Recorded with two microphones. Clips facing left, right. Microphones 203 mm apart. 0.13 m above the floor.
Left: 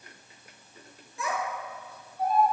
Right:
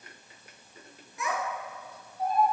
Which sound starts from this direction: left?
A child speaking, at 1.2 s.